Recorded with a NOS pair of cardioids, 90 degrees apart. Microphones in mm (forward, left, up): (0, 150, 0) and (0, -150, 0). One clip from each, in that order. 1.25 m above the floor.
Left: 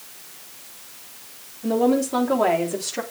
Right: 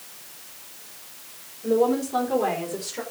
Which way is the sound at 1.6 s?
60° left.